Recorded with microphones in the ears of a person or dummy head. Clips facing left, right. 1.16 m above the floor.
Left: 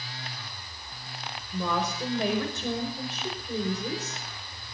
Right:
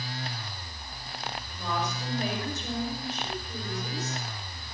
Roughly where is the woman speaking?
Left.